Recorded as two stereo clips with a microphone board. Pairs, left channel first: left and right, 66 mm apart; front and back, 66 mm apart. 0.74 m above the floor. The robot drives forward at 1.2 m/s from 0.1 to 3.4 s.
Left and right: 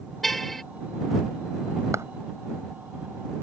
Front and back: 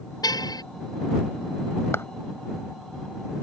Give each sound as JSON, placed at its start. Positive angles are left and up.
{"t": 0.2, "sound": "a car horn", "azimuth_deg": 5}
{"t": 1.9, "sound": "a clap", "azimuth_deg": -50}